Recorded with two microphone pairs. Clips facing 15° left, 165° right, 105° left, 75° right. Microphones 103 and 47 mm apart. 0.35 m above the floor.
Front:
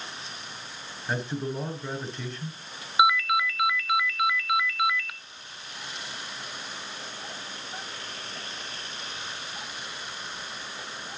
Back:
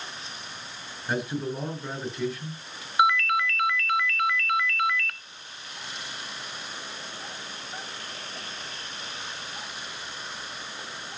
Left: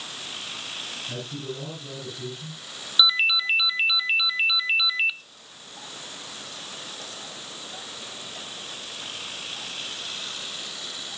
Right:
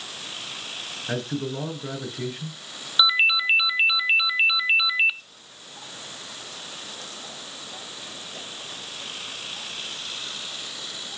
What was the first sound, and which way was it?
A man speaking, 80° right.